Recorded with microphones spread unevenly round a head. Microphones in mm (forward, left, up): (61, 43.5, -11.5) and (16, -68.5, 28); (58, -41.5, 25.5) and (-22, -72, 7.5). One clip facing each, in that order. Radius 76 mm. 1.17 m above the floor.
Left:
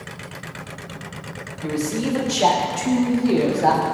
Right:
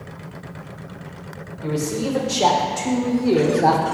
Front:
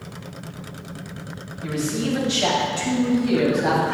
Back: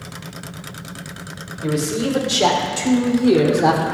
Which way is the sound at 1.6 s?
175° left.